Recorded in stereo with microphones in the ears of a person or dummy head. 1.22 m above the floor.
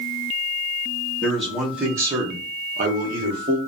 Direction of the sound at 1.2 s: 5° left (ahead or behind).